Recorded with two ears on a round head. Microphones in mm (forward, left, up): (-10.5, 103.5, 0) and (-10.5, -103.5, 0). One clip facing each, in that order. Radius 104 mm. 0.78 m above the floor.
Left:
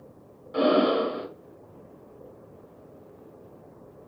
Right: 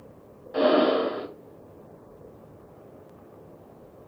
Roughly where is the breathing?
Centre.